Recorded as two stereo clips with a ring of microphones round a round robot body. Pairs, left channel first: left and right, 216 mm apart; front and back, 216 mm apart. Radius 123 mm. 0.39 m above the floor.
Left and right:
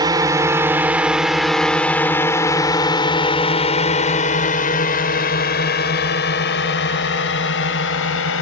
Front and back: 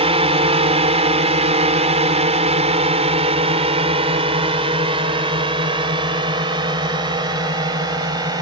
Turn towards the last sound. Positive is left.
turn(degrees=110)